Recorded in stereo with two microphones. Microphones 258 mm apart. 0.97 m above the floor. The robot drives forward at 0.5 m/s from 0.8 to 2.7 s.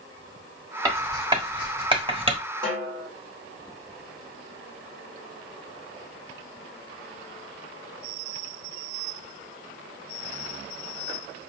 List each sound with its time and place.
0.8 s writing: 15° right (ahead or behind), 1.7 m; by 2.4 s 25° right (ahead or behind), 1.1 m
2.6 s a snare drum: 20° right (ahead or behind), 2.5 m